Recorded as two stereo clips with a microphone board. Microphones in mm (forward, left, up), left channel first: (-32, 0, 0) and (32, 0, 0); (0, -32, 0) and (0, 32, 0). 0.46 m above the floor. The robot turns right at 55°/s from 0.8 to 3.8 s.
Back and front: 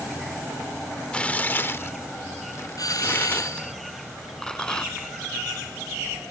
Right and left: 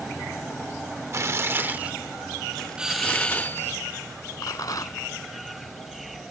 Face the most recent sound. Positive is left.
turn(degrees=-105)